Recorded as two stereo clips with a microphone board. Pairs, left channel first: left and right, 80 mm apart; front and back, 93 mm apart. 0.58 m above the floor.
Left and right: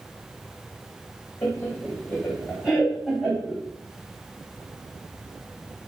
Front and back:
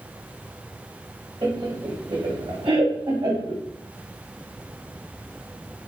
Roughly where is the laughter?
Behind left.